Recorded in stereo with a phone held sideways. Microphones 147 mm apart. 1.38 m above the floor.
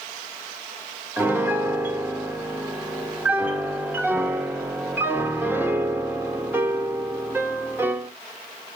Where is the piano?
15° right (ahead or behind), 1.7 m.